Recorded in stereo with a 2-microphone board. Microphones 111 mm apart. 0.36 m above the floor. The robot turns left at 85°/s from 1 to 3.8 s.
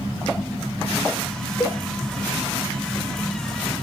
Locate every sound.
1.6 s a cowbell: 10° left (ahead or behind), 0.5 m; by 1.8 s 20° left (ahead or behind), 0.5 m